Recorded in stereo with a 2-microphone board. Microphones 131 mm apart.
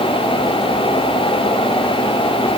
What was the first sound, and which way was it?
Only background noise.